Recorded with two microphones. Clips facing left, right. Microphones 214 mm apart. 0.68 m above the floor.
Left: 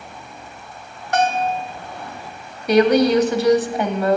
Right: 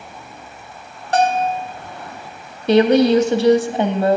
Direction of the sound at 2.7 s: 30° right (ahead or behind).